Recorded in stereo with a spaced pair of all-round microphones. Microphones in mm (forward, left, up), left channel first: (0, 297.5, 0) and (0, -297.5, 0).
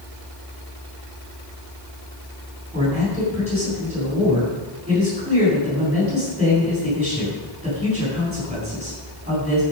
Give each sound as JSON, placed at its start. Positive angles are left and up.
{"t": 2.7, "sound": "a man speaking", "side_deg": -10, "distance_m": 8.0}